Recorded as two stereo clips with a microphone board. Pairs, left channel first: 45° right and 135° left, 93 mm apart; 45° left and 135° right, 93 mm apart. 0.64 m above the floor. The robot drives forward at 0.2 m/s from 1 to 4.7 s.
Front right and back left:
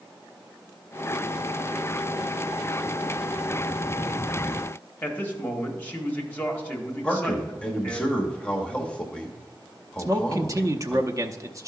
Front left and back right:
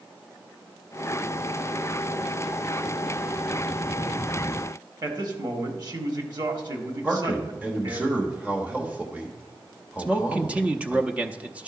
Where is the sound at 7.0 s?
100° right, 1.0 m.